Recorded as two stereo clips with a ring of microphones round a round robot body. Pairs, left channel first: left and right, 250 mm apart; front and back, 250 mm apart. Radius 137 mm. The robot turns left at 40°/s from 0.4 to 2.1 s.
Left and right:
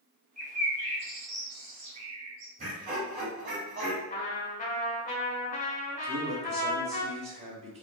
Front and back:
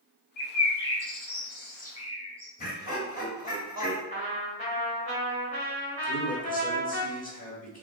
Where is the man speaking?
35° right, 1.1 m.